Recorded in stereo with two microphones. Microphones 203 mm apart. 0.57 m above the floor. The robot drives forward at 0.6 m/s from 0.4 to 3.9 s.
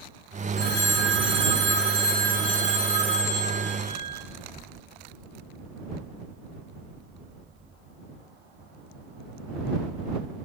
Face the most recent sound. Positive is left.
turn(degrees=-25)  # may be behind; listen again after turning